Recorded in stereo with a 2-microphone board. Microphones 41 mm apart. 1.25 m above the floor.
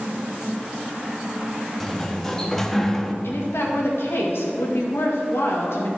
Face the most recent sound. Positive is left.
turn(degrees=70)  # may be behind; listen again after turning